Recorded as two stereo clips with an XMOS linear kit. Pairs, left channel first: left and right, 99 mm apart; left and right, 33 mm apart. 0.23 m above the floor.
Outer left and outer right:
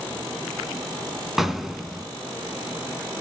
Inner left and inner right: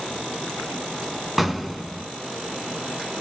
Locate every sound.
1.4 s an explosion: centre (ahead or behind), 0.6 m